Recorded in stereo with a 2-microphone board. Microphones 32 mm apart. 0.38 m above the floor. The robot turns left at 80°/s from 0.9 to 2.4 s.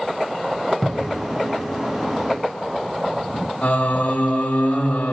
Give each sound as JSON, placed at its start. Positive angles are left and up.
{"t": 0.8, "sound": "a cupboard door", "side_deg": 5, "distance_m": 1.0}
{"t": 3.6, "sound": "singing", "side_deg": 65, "distance_m": 3.5}